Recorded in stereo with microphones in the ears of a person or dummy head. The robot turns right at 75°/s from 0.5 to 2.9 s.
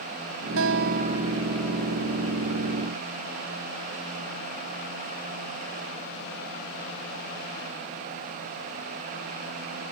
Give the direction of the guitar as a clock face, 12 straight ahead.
2 o'clock.